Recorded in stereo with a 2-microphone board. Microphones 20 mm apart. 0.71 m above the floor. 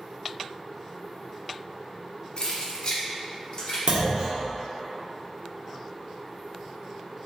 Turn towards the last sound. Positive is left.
turn(degrees=-50)  # may be behind; listen again after turning